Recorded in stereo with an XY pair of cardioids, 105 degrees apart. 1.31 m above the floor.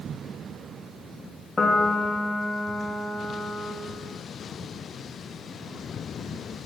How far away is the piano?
About 1.4 m.